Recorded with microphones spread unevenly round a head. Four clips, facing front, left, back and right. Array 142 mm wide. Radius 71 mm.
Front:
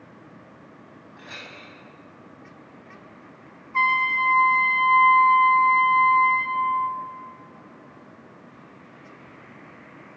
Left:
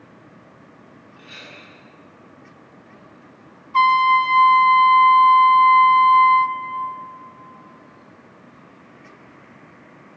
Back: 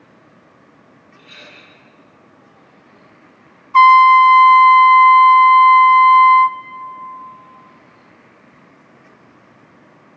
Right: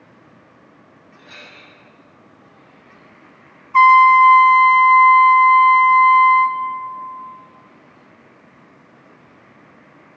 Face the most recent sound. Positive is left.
turn(degrees=-165)